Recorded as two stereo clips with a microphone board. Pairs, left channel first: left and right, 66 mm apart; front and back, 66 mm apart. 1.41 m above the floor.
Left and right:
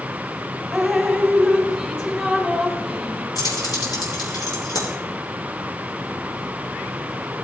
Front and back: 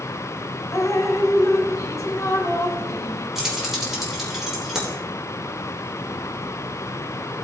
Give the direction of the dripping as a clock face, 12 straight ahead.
12 o'clock.